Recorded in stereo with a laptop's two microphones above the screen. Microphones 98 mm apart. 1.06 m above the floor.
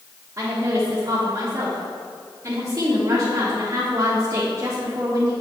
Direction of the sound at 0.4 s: 40° right (ahead or behind).